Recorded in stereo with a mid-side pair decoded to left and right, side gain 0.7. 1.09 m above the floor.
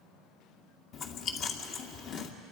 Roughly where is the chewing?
Ahead left.